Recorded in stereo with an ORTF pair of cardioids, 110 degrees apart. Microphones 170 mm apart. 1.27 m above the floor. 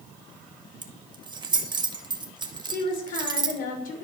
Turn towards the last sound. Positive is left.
turn(degrees=55)